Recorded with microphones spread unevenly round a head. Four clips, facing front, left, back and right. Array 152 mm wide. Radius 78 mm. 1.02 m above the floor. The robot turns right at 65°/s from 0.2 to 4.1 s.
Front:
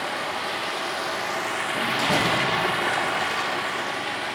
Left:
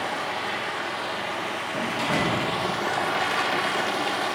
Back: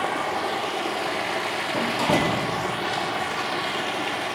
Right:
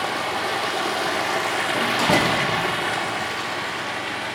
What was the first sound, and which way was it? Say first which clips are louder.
Running water: right 4 dB, back 3 dB; 155° right.